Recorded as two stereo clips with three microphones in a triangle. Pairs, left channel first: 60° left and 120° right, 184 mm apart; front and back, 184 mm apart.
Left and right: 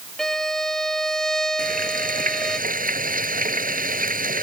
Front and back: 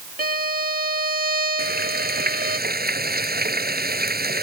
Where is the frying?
155° right.